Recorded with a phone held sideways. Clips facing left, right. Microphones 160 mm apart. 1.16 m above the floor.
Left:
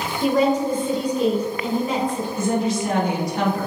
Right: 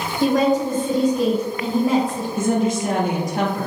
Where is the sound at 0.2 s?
85° right, 1.8 m.